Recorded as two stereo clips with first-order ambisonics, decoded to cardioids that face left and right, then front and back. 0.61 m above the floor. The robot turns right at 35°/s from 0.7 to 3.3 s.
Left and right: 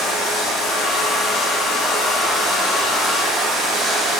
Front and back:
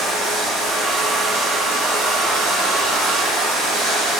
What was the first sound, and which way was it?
Running water, 115° left.